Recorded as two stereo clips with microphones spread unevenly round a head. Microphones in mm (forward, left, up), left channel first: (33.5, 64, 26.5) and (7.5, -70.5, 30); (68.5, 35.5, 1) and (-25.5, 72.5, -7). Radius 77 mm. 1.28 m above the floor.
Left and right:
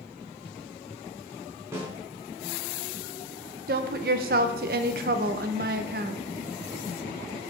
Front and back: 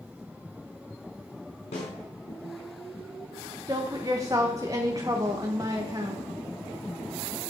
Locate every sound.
1.7 s a snare drum: 30° right, 3.5 m
3.7 s a woman speaking: 130° right, 0.8 m